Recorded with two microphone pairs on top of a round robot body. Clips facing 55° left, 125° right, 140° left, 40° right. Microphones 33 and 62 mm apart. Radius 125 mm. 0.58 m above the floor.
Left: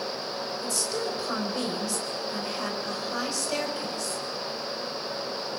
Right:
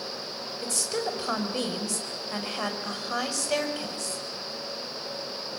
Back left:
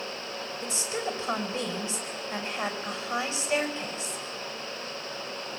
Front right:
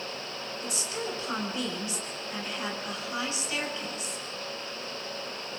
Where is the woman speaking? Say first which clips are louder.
Right 2 dB, back left 3 dB; 160° right, 5.5 m.